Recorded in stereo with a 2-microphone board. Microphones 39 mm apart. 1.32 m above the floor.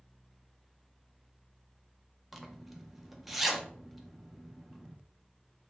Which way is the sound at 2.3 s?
5° right (ahead or behind).